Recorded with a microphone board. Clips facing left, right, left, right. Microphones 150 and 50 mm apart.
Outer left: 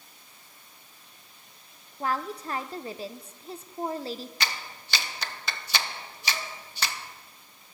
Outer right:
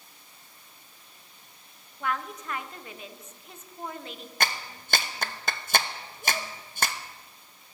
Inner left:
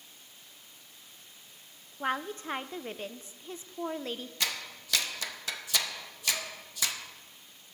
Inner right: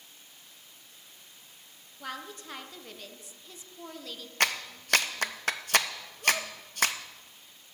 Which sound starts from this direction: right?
A clap, at 4.4 s.